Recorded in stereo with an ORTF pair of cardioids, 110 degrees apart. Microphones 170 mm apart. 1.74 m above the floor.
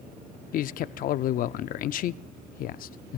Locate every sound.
0.5 s a man speaking: 55° left, 0.5 m